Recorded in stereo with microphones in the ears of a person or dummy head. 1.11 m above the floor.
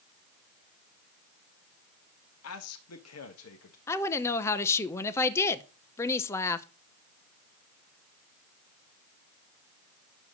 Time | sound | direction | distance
2.4 | a man speaking | 75° left (ahead or behind) | 1.5 m
3.9 | a woman speaking | 10° left (ahead or behind) | 0.8 m